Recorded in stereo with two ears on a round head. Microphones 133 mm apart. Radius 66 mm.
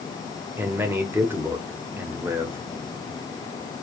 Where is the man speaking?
15° right (ahead or behind), 0.9 m.